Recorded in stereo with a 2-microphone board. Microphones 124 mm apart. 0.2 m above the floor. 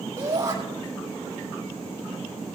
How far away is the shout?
About 6 m.